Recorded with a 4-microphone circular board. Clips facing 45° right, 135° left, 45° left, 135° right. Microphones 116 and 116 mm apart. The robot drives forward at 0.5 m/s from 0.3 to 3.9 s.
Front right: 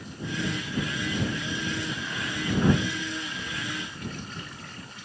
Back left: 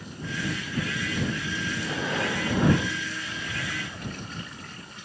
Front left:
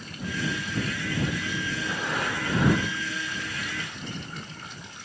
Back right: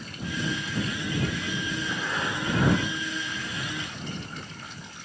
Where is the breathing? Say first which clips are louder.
Back left 5 dB, front left 1 dB; 110° left; by 4.6 s 155° left.